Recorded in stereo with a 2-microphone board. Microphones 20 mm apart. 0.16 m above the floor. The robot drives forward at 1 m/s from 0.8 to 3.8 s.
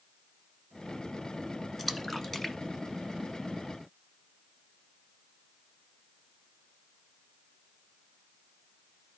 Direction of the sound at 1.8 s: 10° left (ahead or behind).